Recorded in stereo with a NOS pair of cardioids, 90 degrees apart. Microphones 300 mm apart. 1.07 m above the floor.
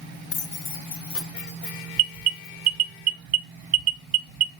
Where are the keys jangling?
40° left, 0.5 m; by 2.7 s 45° left, 2 m.